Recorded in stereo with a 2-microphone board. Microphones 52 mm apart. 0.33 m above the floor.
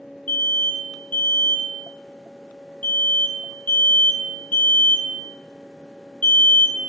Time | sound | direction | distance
0.3 | an alarm | 30° left (ahead or behind) | 1.1 m